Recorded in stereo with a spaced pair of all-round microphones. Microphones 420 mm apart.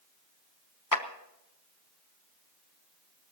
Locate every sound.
0.9 s a clap: 50° left (ahead or behind), 0.9 m